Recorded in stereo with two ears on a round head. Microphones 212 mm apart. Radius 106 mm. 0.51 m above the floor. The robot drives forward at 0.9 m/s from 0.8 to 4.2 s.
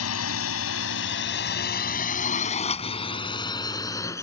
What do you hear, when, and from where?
0.0 s a drone: 70° left (ahead or behind); by 4.2 s 15° left (ahead or behind)